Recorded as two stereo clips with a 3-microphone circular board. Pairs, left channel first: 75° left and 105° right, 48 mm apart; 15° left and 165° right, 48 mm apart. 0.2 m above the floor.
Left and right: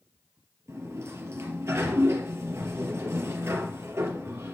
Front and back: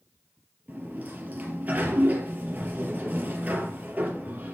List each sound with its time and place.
0.7 s a sliding door: 115° right, 3.5 m